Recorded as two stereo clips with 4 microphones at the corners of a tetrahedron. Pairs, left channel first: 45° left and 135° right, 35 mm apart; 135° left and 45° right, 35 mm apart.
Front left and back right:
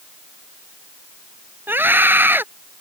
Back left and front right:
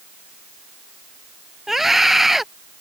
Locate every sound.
1.7 s a scream: 125° right